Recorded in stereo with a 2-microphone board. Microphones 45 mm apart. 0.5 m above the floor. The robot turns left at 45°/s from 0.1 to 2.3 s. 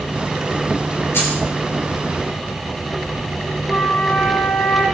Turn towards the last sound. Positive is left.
turn(degrees=45)  # may be behind; listen again after turning